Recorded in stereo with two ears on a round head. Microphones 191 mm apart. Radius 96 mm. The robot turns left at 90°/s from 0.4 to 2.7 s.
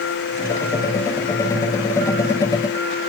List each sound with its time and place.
Only background noise.